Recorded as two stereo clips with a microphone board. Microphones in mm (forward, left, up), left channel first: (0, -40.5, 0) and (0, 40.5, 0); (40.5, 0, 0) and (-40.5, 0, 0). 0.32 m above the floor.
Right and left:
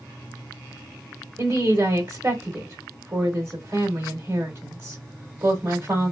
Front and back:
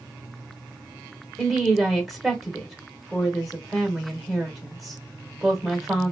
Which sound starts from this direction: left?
A woman speaking, at 1.4 s.